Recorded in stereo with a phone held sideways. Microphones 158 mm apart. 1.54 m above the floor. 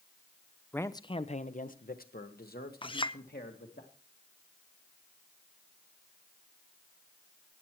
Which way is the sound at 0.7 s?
10° left (ahead or behind).